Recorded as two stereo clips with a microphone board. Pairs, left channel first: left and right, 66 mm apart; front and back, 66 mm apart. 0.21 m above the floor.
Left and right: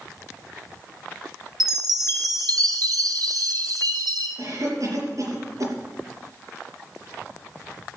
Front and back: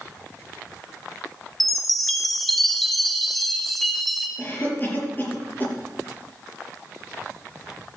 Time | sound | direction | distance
1.6 | a chime | 85° right | 1.3 m
4.4 | a cough | 60° right | 5 m